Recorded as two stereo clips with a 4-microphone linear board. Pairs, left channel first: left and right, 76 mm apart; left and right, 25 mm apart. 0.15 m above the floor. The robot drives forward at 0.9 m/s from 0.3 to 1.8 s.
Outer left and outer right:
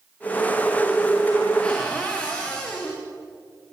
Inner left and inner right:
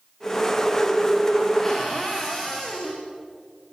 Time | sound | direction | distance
1.6 | a cupboard door | 15° left (ahead or behind) | 6 m